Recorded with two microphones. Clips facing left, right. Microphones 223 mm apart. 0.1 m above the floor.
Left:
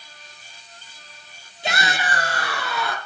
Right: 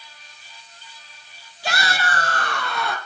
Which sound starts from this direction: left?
A shout, at 1.6 s.